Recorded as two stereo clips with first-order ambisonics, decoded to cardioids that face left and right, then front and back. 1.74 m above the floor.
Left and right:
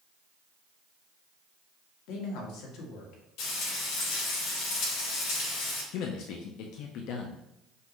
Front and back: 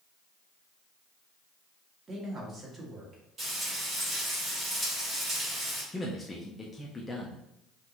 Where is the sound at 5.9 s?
80° left, 0.5 m.